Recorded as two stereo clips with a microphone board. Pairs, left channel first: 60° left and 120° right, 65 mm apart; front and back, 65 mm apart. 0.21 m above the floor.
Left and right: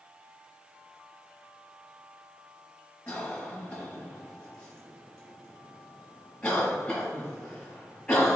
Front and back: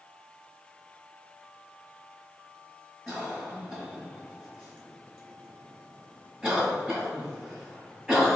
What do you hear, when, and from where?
3.1 s a cough: 100° left, 1.4 m